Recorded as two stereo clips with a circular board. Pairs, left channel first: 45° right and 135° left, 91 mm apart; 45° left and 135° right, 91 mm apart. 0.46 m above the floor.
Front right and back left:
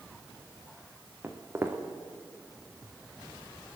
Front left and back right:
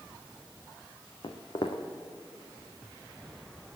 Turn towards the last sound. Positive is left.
turn(degrees=70)